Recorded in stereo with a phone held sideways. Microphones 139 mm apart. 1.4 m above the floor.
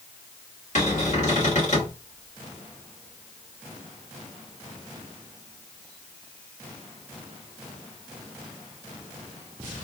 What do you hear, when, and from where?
0.8 s a cupboard door: 60° left (ahead or behind), 1.5 m